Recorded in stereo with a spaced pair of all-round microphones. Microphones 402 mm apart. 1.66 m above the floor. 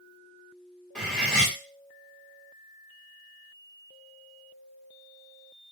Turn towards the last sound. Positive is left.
turn(degrees=0)  # may be behind; listen again after turning